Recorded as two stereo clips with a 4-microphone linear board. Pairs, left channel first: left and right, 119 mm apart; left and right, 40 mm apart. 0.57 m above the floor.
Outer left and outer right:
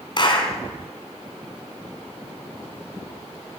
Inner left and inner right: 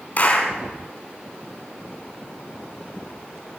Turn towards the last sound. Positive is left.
turn(degrees=40)  # may be behind; listen again after turning